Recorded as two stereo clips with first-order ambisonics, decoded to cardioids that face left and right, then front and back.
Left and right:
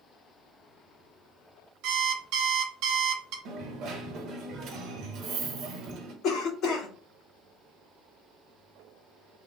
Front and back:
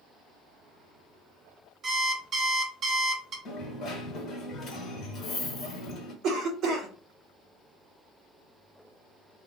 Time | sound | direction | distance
1.8 | an alarm clock | 115° right | 1.1 m
3.5 | a dropped coin | 50° right | 0.9 m
6.2 | a cough | 130° left | 1.7 m